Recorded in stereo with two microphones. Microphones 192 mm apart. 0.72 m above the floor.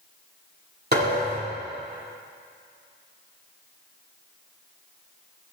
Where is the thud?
60° right (ahead or behind), 7 m.